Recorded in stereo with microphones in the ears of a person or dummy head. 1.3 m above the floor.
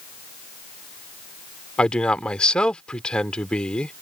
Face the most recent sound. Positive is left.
turn(degrees=5)  # may be behind; listen again after turning